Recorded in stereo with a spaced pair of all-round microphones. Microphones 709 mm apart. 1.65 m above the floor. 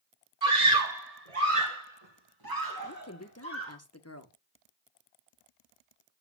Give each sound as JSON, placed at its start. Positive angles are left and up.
{"t": 0.4, "sound": "a scream", "side_deg": -75, "distance_m": 2.0}
{"t": 2.9, "sound": "a woman speaking", "side_deg": 20, "distance_m": 1.4}